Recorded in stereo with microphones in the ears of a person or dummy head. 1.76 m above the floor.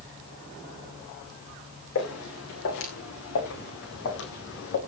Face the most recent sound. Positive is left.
turn(degrees=65)  # may be behind; listen again after turning